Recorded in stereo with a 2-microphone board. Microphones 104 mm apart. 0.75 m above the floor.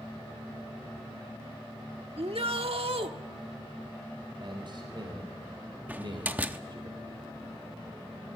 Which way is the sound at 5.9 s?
15° right (ahead or behind).